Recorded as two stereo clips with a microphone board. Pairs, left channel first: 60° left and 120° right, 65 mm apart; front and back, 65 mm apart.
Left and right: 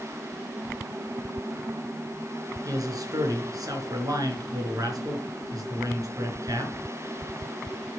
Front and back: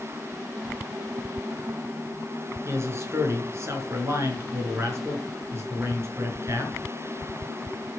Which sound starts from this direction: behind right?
A man speaking, at 2.6 s.